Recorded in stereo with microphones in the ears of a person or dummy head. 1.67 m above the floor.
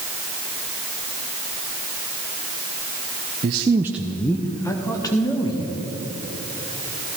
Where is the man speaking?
30° right (ahead or behind), 0.6 m; by 5.7 s 25° left (ahead or behind), 1.8 m.